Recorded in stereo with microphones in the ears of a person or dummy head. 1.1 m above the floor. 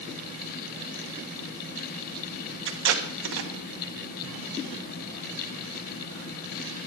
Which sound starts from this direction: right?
Tape being pulled, at 2.7 s.